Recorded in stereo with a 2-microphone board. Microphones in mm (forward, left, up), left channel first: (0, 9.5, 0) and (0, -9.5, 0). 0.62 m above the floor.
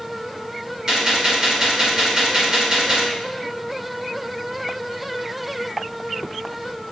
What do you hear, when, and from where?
0.9 s a gunshot: 25° right (ahead or behind), 2.5 m